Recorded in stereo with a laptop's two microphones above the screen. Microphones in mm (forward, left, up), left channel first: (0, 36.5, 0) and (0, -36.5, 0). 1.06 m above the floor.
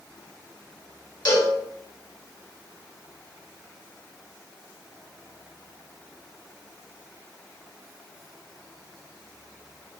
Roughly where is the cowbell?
Left.